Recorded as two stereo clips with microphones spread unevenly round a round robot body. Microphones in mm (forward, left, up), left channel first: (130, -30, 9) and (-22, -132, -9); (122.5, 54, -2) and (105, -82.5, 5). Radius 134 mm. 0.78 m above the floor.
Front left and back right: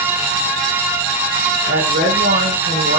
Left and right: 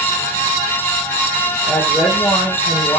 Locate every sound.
1.7 s a woman speaking: 170° left, 3 m